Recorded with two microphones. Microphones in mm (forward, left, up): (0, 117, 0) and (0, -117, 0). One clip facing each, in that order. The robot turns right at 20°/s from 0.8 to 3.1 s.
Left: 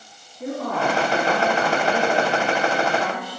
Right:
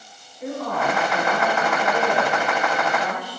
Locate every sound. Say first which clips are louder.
0.4 s a woman speaking: left 1 dB; 50° left, 3 m; by 3.4 s 100° left, 3 m